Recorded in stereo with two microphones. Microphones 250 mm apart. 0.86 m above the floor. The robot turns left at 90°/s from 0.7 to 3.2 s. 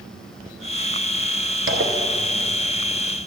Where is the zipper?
70° right, 0.8 m; by 2.6 s 155° right, 0.8 m.